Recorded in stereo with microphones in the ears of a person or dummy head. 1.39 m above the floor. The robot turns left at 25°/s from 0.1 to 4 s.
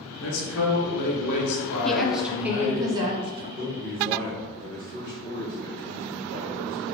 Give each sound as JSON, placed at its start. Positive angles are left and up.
{"t": 0.2, "sound": "a man speaking", "azimuth_deg": 95, "distance_m": 0.9}
{"t": 1.8, "sound": "a woman speaking", "azimuth_deg": 5, "distance_m": 0.5}
{"t": 3.6, "sound": "a man speaking", "side_deg": -50, "distance_m": 0.9}